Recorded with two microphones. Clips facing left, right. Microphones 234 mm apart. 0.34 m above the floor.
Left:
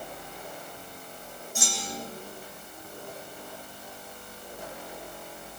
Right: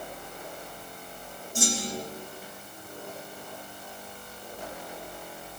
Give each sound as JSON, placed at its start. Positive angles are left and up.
{"t": 1.6, "sound": "a clunk", "side_deg": -35, "distance_m": 9.0}